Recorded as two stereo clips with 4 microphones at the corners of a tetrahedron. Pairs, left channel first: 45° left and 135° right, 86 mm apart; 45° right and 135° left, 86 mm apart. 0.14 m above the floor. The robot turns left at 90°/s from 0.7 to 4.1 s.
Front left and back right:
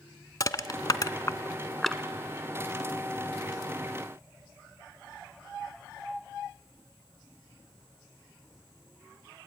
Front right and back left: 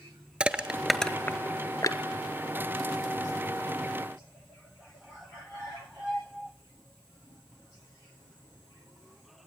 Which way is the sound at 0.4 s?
65° left.